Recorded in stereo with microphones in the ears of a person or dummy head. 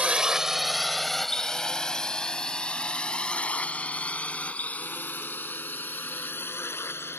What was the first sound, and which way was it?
A drone, 5° right (ahead or behind).